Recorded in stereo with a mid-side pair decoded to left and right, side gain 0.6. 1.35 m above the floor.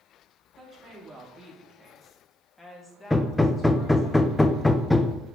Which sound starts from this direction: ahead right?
A woman speaking, at 0.6 s.